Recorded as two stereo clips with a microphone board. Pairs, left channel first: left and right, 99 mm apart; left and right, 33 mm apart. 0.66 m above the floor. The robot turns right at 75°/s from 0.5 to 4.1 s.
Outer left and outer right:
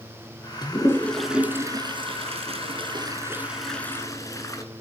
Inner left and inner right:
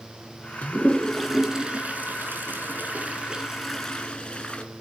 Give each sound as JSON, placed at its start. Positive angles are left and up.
{"t": 0.6, "sound": "a toilet flushing", "side_deg": 45, "distance_m": 2.5}